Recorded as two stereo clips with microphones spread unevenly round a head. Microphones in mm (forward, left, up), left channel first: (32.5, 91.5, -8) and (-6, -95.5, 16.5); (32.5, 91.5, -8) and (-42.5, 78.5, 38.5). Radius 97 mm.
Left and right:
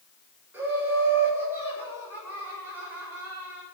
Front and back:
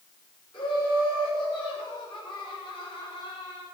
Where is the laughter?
20° right, 7.5 m.